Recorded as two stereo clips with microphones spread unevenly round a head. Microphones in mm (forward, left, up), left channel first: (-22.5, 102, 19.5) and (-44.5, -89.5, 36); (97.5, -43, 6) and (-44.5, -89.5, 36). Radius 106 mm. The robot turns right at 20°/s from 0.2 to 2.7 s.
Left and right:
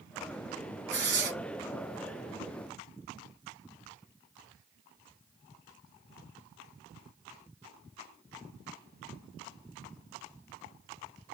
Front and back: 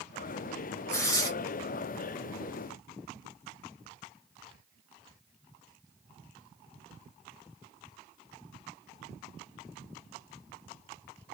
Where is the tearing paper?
60° right, 1.5 m; by 1.3 s 50° right, 1.5 m.